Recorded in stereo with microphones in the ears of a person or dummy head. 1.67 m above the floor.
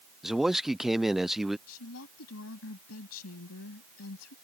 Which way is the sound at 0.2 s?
5° right (ahead or behind).